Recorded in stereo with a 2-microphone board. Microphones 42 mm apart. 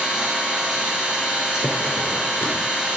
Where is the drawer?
70° left (ahead or behind), 2.5 m.